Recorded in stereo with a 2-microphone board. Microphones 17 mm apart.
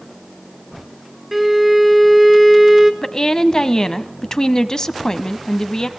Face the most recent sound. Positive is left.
turn(degrees=40)  # may be behind; listen again after turning